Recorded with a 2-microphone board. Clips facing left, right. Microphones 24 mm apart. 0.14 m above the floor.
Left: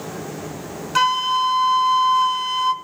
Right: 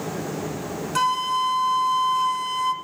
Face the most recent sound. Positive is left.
turn(degrees=30)  # may be behind; listen again after turning